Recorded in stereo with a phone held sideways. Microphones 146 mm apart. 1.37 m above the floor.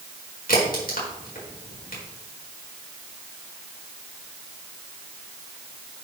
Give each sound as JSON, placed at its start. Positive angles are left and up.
{"t": 0.5, "sound": "a crack", "side_deg": 85, "distance_m": 4.0}